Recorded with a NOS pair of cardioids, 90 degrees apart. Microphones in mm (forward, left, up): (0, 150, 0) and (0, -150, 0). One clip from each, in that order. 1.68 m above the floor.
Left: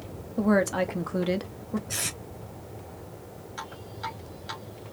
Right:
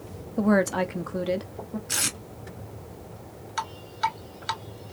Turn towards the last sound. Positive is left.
turn(degrees=-70)